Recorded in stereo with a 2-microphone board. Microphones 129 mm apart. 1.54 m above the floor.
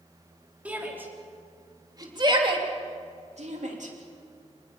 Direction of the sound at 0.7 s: 10° right (ahead or behind).